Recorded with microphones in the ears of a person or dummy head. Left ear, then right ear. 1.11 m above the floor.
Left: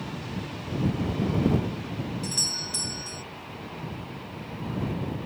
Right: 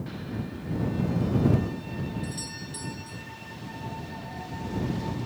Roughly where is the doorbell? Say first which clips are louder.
Left 9 dB; left.